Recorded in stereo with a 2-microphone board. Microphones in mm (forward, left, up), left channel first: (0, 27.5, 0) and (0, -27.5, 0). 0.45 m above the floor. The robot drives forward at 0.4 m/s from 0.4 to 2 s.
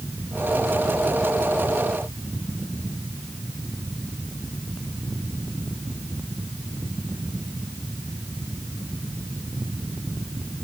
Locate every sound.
Only background noise.